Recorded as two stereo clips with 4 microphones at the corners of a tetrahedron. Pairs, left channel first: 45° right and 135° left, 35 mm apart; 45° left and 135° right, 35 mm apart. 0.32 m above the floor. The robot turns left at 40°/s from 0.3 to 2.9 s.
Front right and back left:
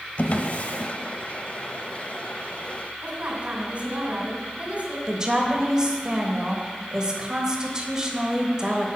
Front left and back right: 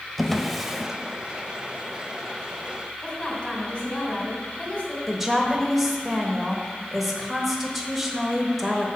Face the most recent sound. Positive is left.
turn(degrees=145)